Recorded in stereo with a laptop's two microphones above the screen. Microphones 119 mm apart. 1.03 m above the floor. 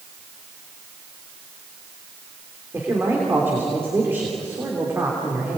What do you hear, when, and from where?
2.7 s a man speaking: 15° right (ahead or behind), 3 m